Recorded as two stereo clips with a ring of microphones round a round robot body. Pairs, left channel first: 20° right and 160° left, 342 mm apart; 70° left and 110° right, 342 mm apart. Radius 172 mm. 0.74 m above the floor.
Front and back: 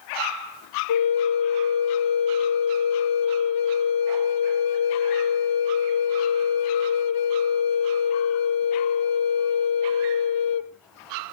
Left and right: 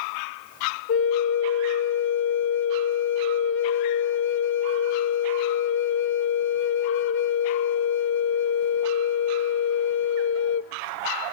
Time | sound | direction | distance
0.9 | a flute | 10° left | 1.1 m